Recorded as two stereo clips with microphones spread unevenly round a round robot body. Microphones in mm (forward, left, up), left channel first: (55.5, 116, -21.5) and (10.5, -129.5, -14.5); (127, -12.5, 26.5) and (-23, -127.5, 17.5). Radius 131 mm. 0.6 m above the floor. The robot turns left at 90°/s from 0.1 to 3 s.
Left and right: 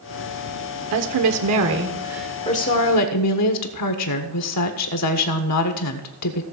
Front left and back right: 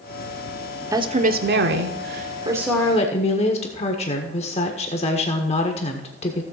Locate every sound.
0.9 s a woman speaking: 70° right, 1.3 m; by 6.5 s 100° left, 1.3 m